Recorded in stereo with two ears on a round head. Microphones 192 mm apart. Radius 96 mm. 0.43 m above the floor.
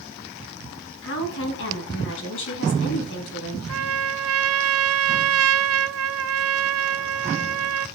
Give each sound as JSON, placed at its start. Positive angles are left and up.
{"t": 1.0, "sound": "a woman speaking", "side_deg": 65, "distance_m": 4.0}
{"t": 3.7, "sound": "a trumpet", "side_deg": -75, "distance_m": 0.8}